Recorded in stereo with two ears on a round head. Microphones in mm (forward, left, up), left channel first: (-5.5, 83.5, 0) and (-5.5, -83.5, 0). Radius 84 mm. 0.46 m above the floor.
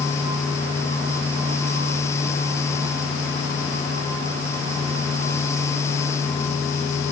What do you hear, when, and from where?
Only background noise.